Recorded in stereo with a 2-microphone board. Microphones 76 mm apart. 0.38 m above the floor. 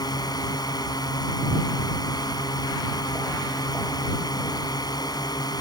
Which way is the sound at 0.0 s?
60° left (ahead or behind).